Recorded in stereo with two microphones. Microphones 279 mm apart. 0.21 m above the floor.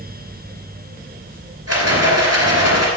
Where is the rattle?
60° right (ahead or behind), 3 m.